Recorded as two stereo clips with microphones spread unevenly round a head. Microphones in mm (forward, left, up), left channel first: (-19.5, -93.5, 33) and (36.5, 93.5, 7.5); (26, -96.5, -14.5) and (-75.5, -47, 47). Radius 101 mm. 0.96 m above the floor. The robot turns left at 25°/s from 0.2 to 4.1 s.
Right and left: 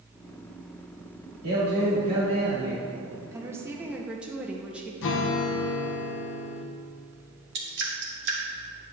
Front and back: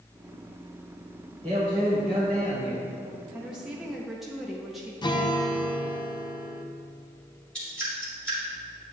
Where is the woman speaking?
25° left, 0.7 m; by 4.9 s 5° left, 0.7 m.